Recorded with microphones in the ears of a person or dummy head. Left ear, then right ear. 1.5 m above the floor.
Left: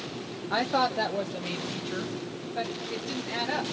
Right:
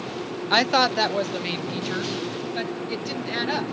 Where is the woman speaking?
70° right (ahead or behind), 0.6 m; by 3.7 s 45° right (ahead or behind), 2.5 m.